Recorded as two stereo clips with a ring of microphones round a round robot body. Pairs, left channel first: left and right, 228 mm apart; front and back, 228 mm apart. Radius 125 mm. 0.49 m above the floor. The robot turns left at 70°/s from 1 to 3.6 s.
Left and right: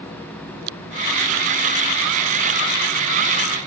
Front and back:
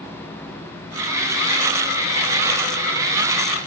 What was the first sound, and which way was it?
Only background noise.